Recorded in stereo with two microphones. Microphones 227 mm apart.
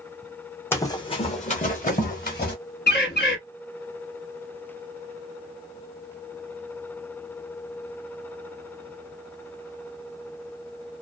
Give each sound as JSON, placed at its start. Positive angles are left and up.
{"t": 0.7, "sound": "running footsteps", "side_deg": 10, "distance_m": 0.6}
{"t": 2.9, "sound": "a bird", "side_deg": 50, "distance_m": 1.1}